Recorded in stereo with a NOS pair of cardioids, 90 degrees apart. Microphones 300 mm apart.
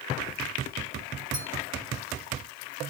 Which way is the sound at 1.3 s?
25° right.